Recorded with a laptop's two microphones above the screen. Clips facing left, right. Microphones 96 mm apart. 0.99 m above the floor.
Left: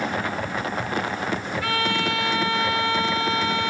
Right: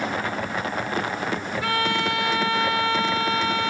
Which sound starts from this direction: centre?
A violin, at 1.6 s.